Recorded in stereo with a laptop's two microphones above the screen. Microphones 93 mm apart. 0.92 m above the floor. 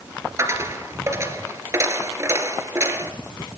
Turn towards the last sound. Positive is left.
turn(degrees=-30)  # may be behind; listen again after turning